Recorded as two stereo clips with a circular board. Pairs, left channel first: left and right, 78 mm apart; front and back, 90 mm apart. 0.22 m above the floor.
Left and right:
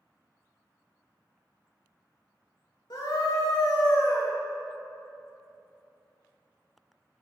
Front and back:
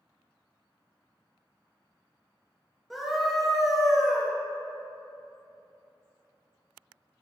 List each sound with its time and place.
2.9 s a scream: 90° left, 3.5 m